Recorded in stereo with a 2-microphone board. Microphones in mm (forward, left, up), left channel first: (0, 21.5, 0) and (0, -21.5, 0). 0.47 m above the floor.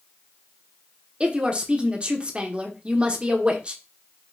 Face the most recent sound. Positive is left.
turn(degrees=-25)  # may be behind; listen again after turning